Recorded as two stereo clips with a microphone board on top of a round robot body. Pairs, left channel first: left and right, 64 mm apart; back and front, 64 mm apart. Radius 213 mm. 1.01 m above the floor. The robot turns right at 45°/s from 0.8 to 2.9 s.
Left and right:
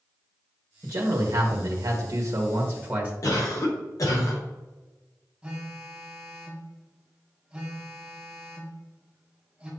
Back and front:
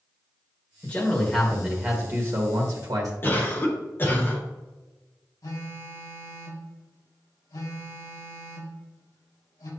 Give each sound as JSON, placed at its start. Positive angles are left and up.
{"t": 0.8, "sound": "a man speaking", "azimuth_deg": -115, "distance_m": 1.8}
{"t": 3.2, "sound": "a cough", "azimuth_deg": 120, "distance_m": 2.0}
{"t": 5.4, "sound": "a phone buzzing", "azimuth_deg": -170, "distance_m": 3.0}